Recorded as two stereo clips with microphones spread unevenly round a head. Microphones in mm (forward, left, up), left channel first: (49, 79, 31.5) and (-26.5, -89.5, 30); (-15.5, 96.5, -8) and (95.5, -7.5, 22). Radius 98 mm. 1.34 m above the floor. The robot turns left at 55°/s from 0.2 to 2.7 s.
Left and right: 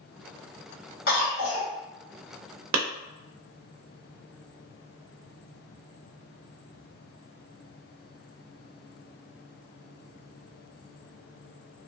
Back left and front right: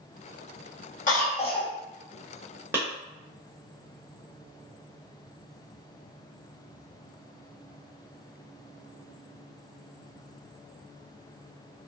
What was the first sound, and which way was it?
A cough, 105° left.